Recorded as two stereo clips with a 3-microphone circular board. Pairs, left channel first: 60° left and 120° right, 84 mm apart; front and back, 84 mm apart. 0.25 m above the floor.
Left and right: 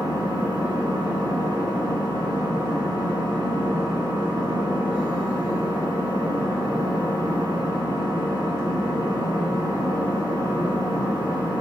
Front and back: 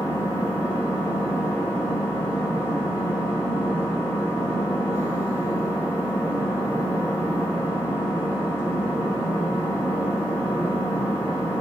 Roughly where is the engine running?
Behind right.